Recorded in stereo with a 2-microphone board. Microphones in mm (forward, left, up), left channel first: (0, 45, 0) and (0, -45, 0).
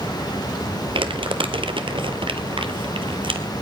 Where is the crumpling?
75° right (ahead or behind), 1.2 m.